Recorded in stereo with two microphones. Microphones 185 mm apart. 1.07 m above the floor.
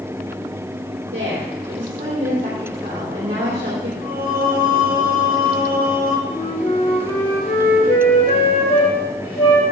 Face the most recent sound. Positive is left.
turn(degrees=50)  # may be behind; listen again after turning